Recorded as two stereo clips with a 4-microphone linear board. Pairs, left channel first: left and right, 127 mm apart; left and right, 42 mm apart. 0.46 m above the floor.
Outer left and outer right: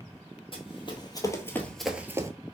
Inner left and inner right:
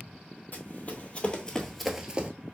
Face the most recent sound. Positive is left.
turn(degrees=-25)  # may be behind; listen again after turning